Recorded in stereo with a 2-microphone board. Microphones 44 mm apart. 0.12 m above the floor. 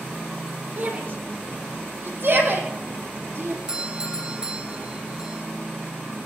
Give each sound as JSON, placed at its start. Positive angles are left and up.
{"t": 0.8, "sound": "a shout", "side_deg": -50, "distance_m": 5.5}
{"t": 3.7, "sound": "a doorbell", "side_deg": -20, "distance_m": 2.5}